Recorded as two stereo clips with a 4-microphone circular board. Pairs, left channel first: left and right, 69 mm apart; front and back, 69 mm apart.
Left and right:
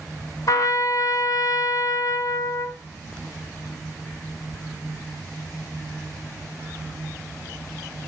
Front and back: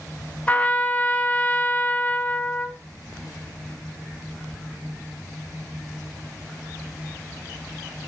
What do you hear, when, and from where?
0.5 s a trumpet: 70° left, 1.0 m